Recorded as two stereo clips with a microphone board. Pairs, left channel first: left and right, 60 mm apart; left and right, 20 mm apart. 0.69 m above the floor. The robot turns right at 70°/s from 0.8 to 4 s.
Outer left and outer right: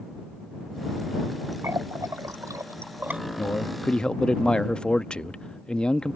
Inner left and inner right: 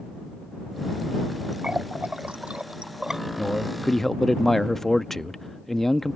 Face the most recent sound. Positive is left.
turn(degrees=160)